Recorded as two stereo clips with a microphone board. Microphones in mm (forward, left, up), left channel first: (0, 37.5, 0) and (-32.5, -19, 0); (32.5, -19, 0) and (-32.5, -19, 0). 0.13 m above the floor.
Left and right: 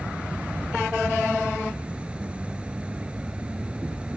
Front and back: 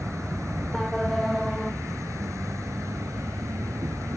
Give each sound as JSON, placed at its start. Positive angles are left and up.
{"t": 0.0, "sound": "an insect", "azimuth_deg": 175}